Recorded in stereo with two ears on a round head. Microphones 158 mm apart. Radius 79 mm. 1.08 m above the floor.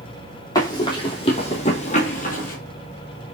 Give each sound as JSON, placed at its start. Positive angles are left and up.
{"t": 0.6, "sound": "running footsteps", "side_deg": 20, "distance_m": 1.8}